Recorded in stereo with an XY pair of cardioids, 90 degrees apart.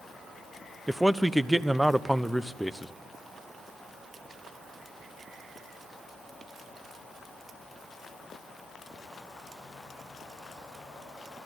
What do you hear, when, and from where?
0.9 s a man speaking: 10° right, 0.9 m